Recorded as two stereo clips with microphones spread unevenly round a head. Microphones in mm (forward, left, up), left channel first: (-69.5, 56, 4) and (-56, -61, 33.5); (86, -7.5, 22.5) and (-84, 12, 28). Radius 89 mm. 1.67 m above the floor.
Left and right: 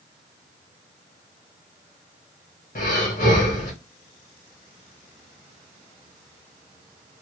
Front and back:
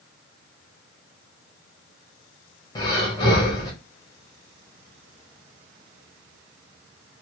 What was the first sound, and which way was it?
Breathing, 60° left.